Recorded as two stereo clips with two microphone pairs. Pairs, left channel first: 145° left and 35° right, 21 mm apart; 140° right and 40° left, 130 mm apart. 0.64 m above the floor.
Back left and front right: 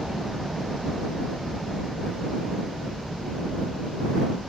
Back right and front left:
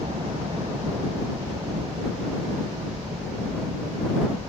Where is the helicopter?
10° left.